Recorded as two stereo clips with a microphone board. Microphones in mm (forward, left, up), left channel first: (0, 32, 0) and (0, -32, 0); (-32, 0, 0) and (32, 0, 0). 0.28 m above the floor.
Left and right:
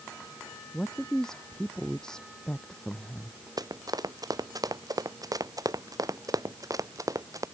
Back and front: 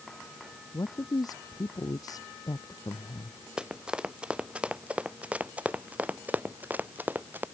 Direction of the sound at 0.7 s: 170° left.